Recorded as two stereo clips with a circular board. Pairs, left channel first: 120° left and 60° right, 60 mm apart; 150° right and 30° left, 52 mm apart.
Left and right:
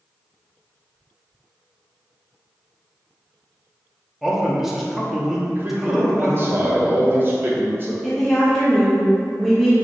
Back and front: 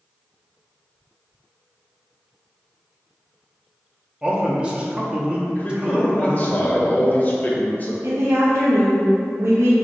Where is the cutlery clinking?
No cutlery clinking in this recording.